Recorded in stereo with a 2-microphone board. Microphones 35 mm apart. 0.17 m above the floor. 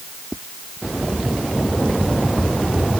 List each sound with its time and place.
Only background noise.